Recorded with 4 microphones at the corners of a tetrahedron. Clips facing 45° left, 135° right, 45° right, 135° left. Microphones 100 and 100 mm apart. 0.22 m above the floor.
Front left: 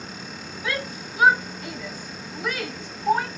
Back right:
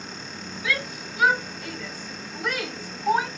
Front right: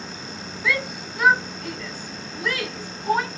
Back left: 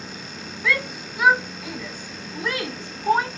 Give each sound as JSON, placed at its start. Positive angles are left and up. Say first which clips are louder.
{"t": 0.6, "sound": "a shout", "louder": "even, back left 1 dB", "azimuth_deg": 40, "distance_m": 1.4}